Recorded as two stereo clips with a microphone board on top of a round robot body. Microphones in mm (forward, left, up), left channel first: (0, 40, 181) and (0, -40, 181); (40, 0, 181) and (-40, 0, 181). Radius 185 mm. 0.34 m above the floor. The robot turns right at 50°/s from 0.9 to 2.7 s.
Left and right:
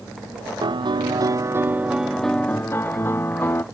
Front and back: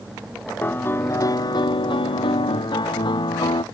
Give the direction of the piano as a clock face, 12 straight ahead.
2 o'clock.